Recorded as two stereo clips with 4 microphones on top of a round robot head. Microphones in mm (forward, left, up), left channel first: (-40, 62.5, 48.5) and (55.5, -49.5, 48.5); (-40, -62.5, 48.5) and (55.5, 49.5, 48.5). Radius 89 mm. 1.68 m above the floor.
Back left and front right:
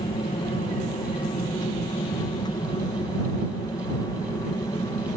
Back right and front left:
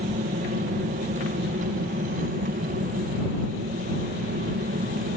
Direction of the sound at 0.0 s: 80° left.